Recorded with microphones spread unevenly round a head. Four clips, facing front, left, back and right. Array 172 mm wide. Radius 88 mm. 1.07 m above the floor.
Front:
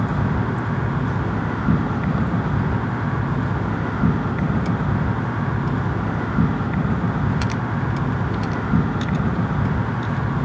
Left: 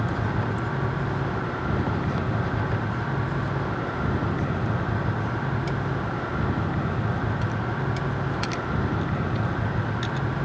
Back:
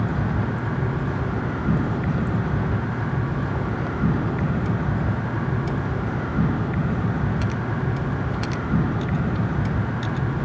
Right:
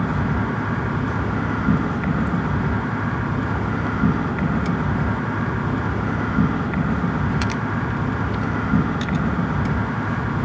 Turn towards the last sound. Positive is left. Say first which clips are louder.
# right 5 dB, front 3 dB
turn(degrees=-45)